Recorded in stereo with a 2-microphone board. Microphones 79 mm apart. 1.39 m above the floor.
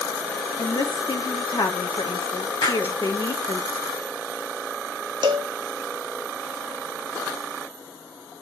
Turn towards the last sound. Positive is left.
turn(degrees=-70)  # may be behind; listen again after turning